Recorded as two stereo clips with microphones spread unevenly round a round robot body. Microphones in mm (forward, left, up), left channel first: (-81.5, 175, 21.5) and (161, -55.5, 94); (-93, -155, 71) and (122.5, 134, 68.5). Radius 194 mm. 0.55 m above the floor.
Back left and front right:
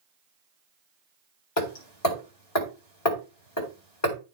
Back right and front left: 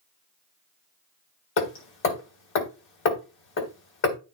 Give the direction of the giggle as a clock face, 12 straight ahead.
I don't hear a giggle.